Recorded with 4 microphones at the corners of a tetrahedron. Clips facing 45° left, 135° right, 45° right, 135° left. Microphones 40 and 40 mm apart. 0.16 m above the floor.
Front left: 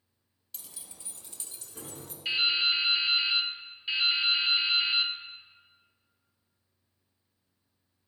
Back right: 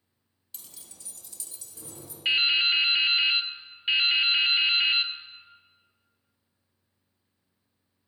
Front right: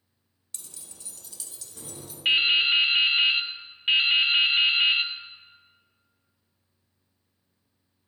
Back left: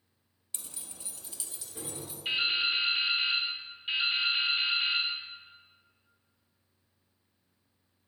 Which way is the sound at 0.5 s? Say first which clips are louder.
Front left 1 dB, back left 1 dB; 140° left.